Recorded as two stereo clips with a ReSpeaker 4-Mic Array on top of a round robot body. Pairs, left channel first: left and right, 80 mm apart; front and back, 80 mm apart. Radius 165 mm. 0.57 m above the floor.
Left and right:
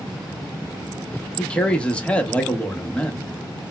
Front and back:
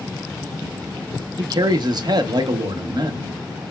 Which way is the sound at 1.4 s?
165° left.